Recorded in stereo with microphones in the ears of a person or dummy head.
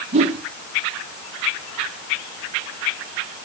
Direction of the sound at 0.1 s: 30° right (ahead or behind).